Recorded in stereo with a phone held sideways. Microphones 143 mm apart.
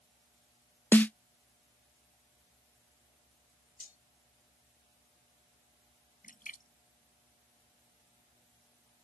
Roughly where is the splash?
Left.